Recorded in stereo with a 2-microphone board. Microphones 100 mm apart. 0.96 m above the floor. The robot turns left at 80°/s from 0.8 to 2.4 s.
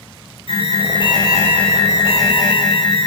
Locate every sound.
0.5 s an alarm: 75° left, 9.5 m; by 3.1 s 55° right, 9.5 m